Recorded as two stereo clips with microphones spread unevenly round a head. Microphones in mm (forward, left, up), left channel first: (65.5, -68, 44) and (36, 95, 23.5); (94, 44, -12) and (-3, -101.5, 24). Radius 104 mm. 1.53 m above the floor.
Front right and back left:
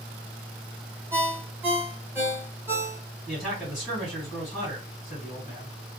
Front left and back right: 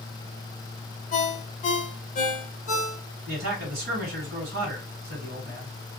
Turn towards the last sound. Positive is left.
turn(degrees=-160)